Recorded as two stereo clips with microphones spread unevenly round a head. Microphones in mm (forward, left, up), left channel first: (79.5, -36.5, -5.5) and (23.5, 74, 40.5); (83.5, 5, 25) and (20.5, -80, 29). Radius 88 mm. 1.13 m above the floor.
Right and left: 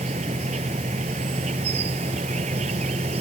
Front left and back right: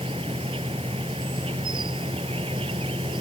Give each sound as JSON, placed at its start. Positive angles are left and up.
{"t": 0.0, "sound": "an insect", "azimuth_deg": 170}